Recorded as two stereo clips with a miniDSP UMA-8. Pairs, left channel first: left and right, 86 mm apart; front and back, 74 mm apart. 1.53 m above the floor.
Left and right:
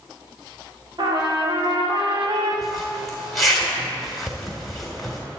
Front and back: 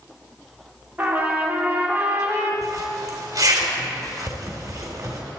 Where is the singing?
I don't hear singing.